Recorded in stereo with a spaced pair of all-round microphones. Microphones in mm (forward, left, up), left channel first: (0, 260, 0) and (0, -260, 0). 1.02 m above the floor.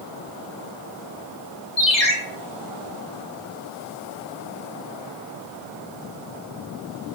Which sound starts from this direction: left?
A ringtone, at 1.8 s.